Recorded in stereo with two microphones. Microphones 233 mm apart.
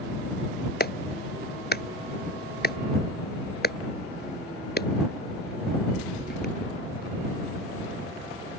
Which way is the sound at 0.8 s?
45° left (ahead or behind).